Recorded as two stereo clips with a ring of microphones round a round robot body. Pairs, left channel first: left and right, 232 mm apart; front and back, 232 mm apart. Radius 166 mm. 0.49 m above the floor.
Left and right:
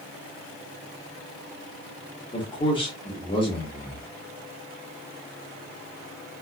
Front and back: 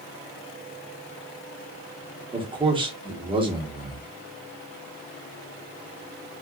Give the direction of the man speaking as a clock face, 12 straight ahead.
7 o'clock.